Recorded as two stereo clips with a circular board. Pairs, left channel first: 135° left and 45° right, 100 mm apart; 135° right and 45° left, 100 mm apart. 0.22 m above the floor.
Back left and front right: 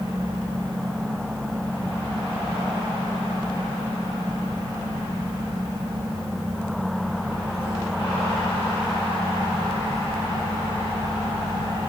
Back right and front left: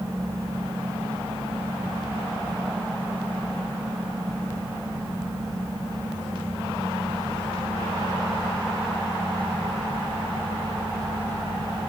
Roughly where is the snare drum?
I don't hear a snare drum.